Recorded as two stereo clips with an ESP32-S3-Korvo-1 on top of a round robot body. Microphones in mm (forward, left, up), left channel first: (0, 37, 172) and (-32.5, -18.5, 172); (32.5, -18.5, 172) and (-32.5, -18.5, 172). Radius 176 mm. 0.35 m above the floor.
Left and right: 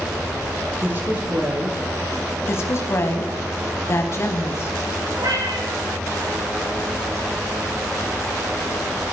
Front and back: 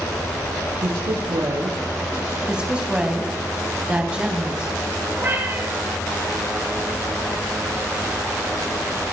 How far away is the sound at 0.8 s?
About 8 m.